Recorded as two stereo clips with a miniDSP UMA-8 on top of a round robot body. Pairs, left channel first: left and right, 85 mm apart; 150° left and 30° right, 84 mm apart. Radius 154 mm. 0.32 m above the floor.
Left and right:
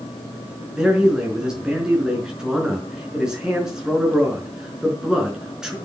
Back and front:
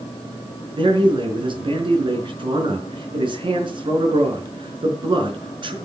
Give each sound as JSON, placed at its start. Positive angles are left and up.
{"t": 0.7, "sound": "a man speaking", "azimuth_deg": -5, "distance_m": 5.0}